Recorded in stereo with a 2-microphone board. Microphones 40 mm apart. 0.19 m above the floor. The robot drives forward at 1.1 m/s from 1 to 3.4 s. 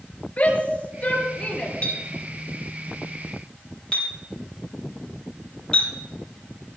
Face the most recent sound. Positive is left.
turn(degrees=20)  # may be behind; listen again after turning